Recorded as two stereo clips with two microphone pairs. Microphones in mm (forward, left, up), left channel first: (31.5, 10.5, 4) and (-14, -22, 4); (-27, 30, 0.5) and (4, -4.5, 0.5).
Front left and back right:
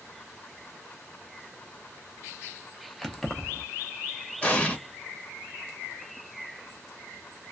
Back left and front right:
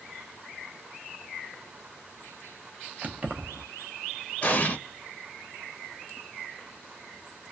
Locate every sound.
3.0 s keys jangling: 40° right, 0.6 m
4.4 s an explosion: 90° left, 0.7 m